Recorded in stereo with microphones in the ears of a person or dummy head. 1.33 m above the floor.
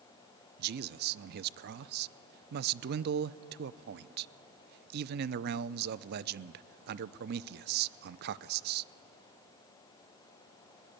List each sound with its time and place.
0.6 s a man speaking: 55° right (ahead or behind), 0.5 m